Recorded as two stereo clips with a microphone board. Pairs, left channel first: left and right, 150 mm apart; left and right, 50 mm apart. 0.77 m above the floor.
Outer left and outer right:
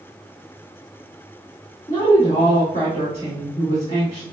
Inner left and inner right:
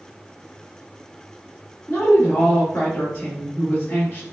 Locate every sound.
1.9 s a woman speaking: 45° left (ahead or behind), 1.6 m